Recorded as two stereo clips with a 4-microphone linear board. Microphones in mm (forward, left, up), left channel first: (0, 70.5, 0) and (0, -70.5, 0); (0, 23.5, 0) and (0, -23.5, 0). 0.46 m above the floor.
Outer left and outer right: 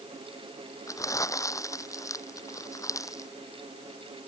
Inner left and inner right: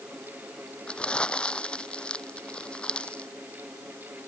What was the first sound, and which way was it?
Crumpling, 20° left (ahead or behind).